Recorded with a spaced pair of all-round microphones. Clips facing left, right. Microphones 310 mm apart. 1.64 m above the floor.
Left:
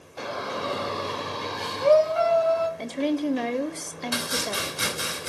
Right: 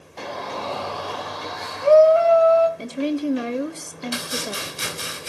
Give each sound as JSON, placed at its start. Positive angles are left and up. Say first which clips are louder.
{"t": 0.2, "sound": "a shout", "louder": "even", "side_deg": 5, "distance_m": 1.2}
{"t": 2.8, "sound": "a woman speaking", "louder": "right 2 dB", "side_deg": -10, "distance_m": 1.0}
{"t": 4.1, "sound": "chopping", "louder": "left 1 dB", "side_deg": 65, "distance_m": 5.0}